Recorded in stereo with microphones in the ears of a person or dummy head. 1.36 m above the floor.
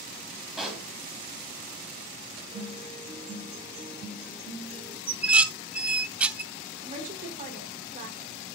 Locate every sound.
0.6 s a pop: 5° right (ahead or behind), 3.5 m
2.5 s a guitar: 30° right (ahead or behind), 7.5 m
5.1 s dishes clattering: 5° right (ahead or behind), 0.6 m
6.8 s a woman speaking: 40° right (ahead or behind), 3.5 m